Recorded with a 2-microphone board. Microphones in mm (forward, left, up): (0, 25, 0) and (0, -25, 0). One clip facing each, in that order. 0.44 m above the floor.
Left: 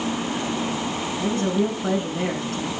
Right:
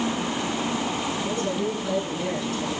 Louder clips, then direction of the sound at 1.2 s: Left 7 dB; 55° left (ahead or behind).